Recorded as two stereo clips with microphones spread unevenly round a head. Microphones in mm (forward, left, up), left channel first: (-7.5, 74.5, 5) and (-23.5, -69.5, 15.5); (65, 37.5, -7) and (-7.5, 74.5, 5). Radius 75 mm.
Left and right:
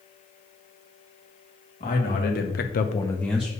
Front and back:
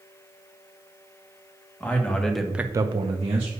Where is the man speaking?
45° left, 1.8 m; by 3.5 s straight behind, 1.2 m.